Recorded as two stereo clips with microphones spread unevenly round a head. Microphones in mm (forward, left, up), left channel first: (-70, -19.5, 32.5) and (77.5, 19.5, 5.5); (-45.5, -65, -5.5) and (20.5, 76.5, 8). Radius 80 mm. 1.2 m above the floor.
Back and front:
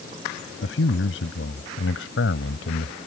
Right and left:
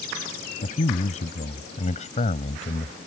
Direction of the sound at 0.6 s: 160° right.